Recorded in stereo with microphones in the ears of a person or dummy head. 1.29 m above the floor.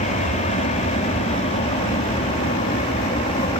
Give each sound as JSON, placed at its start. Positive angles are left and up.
{"t": 0.0, "sound": "an aircraft", "side_deg": 35}